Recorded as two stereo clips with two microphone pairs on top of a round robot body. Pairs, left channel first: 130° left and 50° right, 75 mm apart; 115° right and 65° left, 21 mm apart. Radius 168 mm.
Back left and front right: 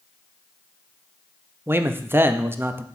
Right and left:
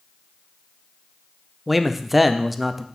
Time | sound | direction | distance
1.7 | a man speaking | 10° right | 0.7 m